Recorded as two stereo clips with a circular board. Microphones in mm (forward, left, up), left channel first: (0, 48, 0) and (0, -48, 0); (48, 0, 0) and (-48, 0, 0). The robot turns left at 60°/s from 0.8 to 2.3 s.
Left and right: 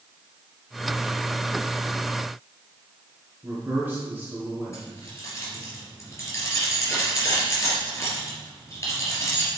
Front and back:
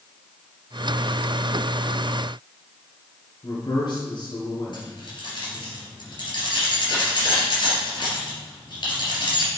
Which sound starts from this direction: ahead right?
A man speaking, at 3.4 s.